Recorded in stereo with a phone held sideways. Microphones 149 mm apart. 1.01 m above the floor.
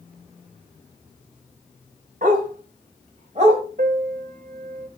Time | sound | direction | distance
2.2 | a dog barking | 70° right (ahead or behind) | 3 m
3.8 | a piano | 80° right | 0.9 m